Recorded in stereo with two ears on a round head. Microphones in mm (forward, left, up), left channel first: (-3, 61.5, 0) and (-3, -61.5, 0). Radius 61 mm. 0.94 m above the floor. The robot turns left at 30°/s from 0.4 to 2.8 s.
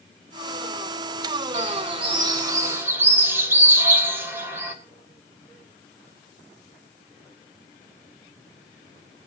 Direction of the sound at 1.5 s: 125° right.